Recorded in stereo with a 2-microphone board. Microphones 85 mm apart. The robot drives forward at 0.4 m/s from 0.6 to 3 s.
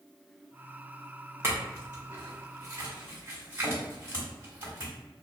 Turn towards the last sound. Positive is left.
turn(degrees=-25)  # may be behind; listen again after turning